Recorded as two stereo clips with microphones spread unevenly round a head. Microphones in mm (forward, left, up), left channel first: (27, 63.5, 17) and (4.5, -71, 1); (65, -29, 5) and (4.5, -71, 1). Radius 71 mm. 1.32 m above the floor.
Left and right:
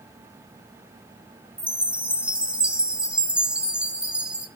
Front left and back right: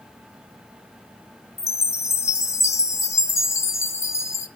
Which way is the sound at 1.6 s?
15° right.